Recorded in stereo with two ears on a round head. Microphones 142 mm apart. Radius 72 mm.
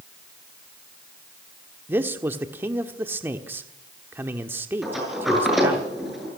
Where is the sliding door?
Centre (ahead or behind), 7.5 m.